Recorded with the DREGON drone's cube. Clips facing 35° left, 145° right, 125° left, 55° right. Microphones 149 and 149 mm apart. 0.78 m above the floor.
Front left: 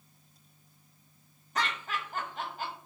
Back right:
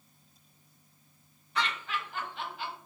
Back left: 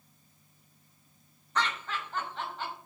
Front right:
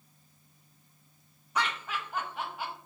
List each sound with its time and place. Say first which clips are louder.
1.6 s laughter: even, even; 20° left, 0.6 m